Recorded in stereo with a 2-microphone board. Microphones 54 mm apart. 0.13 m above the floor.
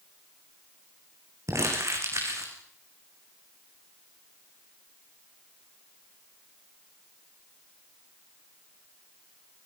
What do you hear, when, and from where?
1.5 s crumpling: 65° right (ahead or behind), 6 m